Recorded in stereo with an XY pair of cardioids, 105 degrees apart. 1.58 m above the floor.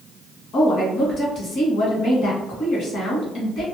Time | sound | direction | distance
0.5 | a woman speaking | 60° left | 1.3 m